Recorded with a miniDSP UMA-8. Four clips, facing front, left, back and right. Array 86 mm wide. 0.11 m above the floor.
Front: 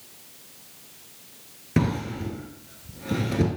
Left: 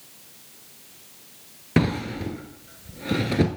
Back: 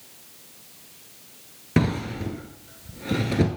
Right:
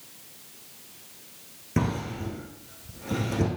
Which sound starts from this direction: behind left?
A drawer, at 1.8 s.